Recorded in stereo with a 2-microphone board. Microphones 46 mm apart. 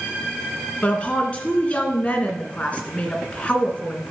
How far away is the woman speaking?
About 2 m.